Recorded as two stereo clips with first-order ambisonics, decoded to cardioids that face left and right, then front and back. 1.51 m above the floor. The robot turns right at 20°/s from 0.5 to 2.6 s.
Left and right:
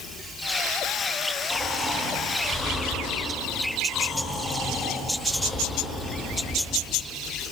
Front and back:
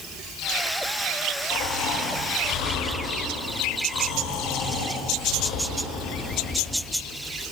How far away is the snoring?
About 3.5 m.